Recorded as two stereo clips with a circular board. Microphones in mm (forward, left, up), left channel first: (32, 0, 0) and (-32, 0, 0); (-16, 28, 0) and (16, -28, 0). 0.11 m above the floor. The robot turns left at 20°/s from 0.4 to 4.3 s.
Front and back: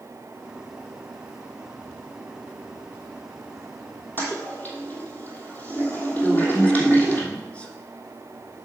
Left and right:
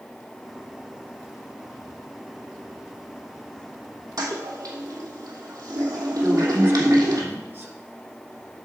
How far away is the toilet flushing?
About 1.9 m.